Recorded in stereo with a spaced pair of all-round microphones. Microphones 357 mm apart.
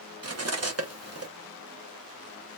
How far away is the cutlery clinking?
About 0.8 m.